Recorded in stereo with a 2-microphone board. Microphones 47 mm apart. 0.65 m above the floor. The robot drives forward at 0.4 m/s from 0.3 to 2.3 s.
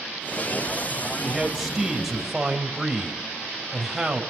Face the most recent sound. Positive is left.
turn(degrees=-5)  # may be behind; listen again after turning